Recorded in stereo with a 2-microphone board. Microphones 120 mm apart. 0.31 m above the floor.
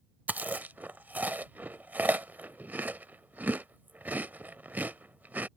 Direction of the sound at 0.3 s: 15° right (ahead or behind).